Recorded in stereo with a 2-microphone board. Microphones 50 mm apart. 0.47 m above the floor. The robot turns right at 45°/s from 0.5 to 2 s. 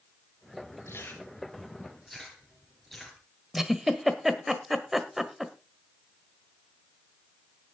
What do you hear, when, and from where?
0.9 s chewing: 50° left (ahead or behind), 4.5 m; by 3.2 s centre (ahead or behind), 4.5 m
3.5 s a giggle: 5° right (ahead or behind), 1.5 m